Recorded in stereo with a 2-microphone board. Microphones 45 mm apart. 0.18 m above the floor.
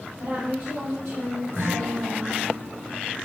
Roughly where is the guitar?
Right.